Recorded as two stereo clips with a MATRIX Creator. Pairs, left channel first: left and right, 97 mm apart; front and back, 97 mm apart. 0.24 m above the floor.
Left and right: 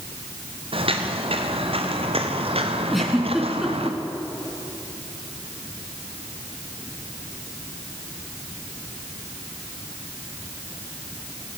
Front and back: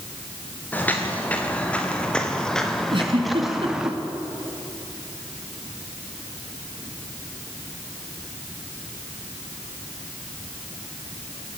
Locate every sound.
0.7 s footsteps: 70° right, 3.5 m; by 3.9 s 95° right, 2.5 m
2.9 s a giggle: straight behind, 3 m